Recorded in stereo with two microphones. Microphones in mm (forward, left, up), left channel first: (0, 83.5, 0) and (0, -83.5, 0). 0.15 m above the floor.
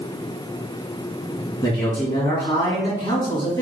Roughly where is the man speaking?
Left.